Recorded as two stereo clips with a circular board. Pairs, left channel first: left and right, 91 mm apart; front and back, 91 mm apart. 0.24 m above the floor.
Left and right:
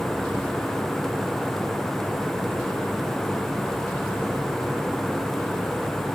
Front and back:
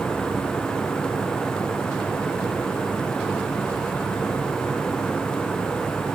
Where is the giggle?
No giggle in this recording.